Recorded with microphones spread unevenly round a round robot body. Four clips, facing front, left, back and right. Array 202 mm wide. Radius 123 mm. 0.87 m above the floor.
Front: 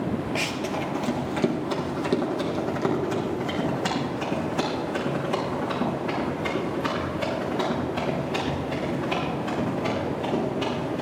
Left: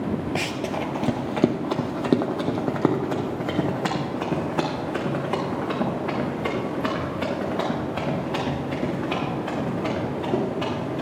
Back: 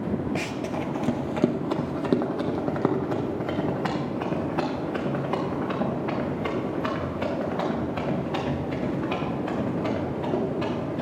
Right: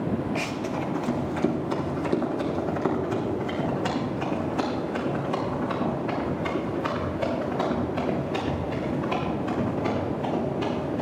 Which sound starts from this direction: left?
Running footsteps, at 0.3 s.